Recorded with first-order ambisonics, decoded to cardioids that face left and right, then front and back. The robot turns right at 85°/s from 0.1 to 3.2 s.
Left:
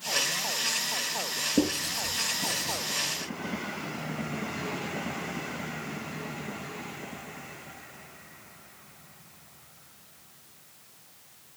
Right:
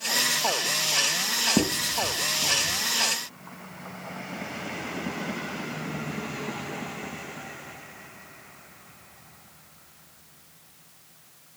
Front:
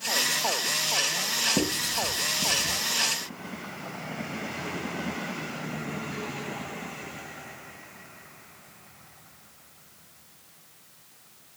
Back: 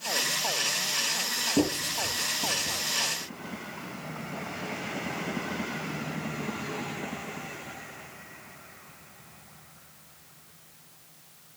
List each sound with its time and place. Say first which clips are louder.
1.6 s writing: right 3 dB, front 1 dB; 85° right, 3.5 m; by 2.8 s 20° left, 3.5 m